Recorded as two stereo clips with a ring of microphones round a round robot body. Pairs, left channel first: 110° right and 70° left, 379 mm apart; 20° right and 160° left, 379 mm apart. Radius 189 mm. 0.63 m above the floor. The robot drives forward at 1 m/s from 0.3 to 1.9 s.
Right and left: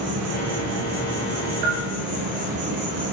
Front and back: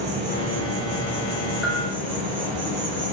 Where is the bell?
65° left, 2.5 m; by 1.9 s 70° left, 2.5 m.